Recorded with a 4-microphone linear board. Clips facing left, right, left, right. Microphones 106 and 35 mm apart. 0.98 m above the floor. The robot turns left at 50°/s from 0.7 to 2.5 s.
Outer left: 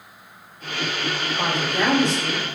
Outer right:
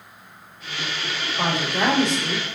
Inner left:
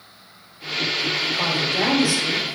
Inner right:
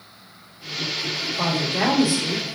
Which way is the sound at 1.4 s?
Straight ahead.